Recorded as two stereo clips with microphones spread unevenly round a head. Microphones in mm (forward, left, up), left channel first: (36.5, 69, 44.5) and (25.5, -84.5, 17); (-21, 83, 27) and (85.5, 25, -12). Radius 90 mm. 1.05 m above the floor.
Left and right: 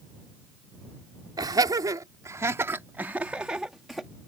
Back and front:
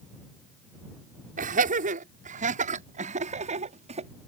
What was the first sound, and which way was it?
Laughter, 30° right.